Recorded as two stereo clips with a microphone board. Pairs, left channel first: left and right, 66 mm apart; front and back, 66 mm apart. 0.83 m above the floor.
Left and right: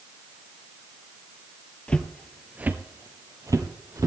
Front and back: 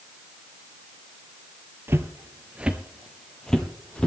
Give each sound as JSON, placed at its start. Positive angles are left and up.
{"t": 1.9, "sound": "footsteps", "azimuth_deg": 155, "distance_m": 1.0}